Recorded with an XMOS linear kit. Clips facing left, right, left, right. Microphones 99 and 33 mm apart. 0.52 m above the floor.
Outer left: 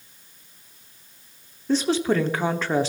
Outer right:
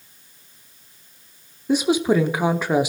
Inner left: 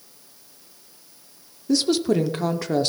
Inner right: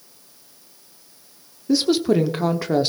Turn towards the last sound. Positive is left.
turn(degrees=-15)  # may be behind; listen again after turning